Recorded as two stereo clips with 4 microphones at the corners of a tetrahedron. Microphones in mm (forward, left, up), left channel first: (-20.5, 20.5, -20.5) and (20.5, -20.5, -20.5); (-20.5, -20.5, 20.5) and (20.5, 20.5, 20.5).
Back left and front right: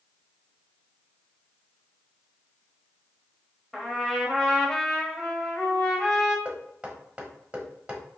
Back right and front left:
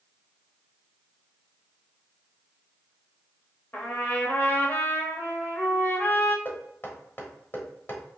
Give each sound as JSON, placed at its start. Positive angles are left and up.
{"t": 3.7, "sound": "a trumpet", "azimuth_deg": -145, "distance_m": 1.2}
{"t": 6.5, "sound": "knocking", "azimuth_deg": -105, "distance_m": 1.0}